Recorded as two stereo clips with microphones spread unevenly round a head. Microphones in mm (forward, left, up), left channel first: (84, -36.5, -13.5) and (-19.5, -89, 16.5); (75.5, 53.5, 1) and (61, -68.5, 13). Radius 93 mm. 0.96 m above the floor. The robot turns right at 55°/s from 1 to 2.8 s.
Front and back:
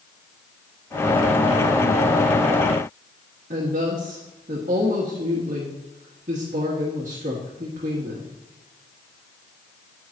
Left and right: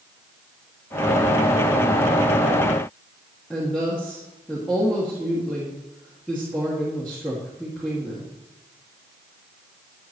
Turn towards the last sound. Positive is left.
turn(degrees=170)